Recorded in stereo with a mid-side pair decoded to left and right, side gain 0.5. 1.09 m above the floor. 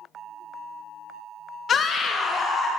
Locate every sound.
1.7 s a scream: 50° left, 0.6 m; by 2.7 s 40° left, 1.3 m